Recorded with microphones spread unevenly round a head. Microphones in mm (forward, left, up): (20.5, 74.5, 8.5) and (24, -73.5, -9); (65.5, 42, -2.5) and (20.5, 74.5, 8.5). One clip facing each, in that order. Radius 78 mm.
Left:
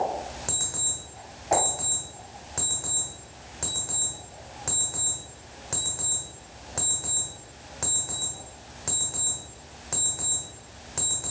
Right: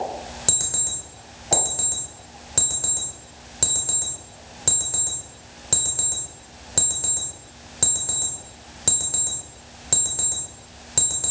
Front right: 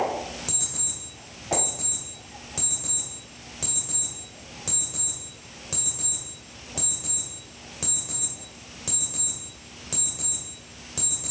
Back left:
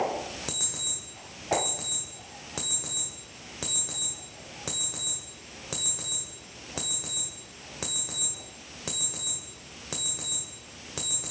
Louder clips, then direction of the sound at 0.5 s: Right 3 dB, back left 1 dB; 145° right.